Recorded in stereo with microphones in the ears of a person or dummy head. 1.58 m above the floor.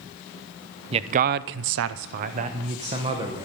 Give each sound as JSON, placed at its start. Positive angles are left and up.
{"t": 0.9, "sound": "a man speaking", "side_deg": -30, "distance_m": 0.8}